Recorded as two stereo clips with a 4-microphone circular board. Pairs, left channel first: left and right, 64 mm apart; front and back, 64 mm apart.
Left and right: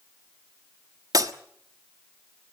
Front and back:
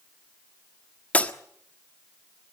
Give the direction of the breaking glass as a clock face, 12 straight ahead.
2 o'clock.